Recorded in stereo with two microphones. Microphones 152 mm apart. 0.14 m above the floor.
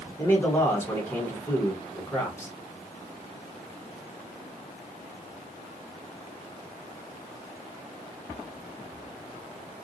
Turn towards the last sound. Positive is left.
turn(degrees=15)  # may be behind; listen again after turning